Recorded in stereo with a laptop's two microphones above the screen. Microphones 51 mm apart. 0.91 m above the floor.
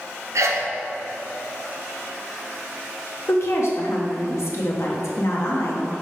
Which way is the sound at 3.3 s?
65° left (ahead or behind).